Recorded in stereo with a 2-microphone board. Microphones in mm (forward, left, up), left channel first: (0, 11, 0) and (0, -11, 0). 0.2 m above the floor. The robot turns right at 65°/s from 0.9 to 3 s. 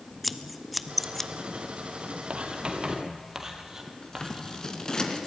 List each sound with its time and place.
0.2 s scissors: centre (ahead or behind), 0.9 m; by 1.3 s 15° left (ahead or behind), 0.9 m
2.3 s writing: 70° right (ahead or behind), 2.5 m; by 4.7 s 25° right (ahead or behind), 2.5 m
4.0 s scissors: 30° left (ahead or behind), 2.5 m